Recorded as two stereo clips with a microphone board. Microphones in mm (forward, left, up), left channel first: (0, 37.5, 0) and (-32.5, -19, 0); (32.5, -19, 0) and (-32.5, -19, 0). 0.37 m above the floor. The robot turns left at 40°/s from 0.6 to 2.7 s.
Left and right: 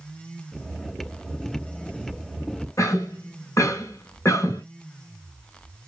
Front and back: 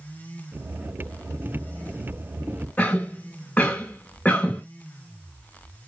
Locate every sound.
2.8 s a cough: 60° left, 2 m